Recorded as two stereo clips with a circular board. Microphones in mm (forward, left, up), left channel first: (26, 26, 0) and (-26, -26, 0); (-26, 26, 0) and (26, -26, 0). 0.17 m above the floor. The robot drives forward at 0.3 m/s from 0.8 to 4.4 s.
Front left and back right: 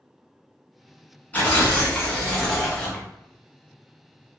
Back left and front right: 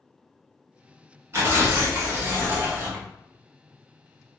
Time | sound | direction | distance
1.3 | tearing paper | 10° right | 1.2 m